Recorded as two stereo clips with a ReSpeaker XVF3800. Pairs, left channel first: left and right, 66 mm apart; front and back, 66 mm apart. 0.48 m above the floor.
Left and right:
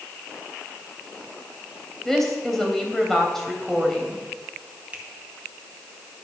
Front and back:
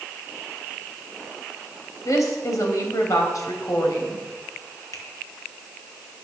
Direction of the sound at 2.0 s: 5° left.